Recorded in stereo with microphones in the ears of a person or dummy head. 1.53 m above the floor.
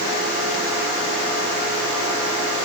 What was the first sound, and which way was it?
Only background noise.